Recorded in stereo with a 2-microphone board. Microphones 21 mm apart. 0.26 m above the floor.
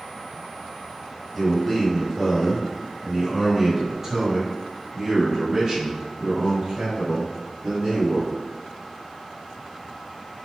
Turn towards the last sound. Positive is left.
turn(degrees=-45)  # may be behind; listen again after turning